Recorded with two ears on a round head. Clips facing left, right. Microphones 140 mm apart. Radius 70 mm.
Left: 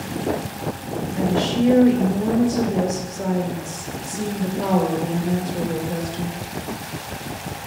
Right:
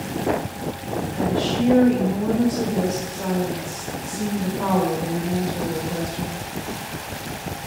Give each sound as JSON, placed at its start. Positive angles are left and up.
{"t": 1.2, "sound": "a woman speaking", "side_deg": 30, "distance_m": 1.7}